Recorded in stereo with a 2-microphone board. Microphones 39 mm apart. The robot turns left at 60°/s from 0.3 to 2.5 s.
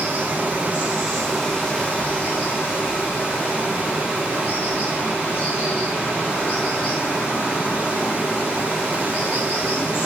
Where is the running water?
120° right, 6 m; by 10.1 s 110° left, 6 m.